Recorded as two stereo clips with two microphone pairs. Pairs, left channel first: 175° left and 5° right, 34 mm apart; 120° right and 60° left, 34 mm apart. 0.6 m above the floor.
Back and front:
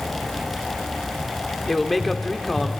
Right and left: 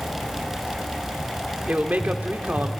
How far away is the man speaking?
About 1.4 m.